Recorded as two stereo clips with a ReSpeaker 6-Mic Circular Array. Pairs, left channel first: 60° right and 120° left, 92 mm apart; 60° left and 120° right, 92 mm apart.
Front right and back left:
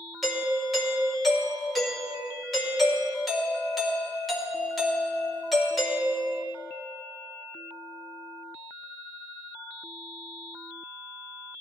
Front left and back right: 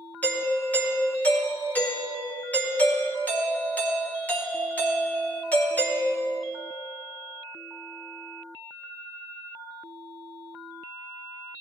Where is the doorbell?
30° left, 1.9 m.